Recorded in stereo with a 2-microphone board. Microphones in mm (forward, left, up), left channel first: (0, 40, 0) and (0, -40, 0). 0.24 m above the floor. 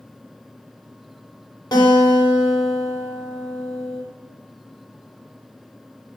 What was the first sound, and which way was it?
A guitar, 60° left (ahead or behind).